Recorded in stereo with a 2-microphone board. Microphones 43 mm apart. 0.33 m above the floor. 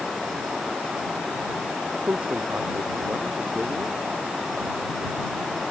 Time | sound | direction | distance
1.9 | a man speaking | 40° right (ahead or behind) | ?